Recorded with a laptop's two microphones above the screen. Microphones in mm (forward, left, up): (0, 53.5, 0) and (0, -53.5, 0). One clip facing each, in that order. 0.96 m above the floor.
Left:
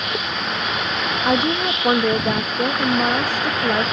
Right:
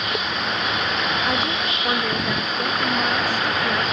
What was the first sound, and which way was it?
A woman speaking, 40° left (ahead or behind).